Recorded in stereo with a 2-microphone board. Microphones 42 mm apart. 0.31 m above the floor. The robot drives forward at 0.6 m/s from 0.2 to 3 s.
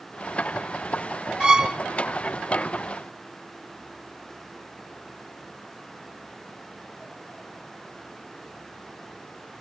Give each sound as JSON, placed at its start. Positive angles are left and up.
{"t": 1.4, "sound": "a violin", "side_deg": -20, "distance_m": 1.1}